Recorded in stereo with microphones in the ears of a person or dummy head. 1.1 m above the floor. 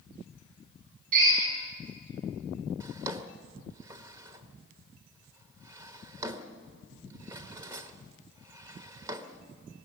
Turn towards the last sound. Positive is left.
turn(degrees=-20)  # may be behind; listen again after turning